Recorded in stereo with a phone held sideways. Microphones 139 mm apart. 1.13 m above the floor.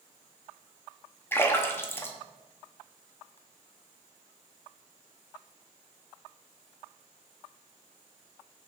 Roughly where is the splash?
Centre.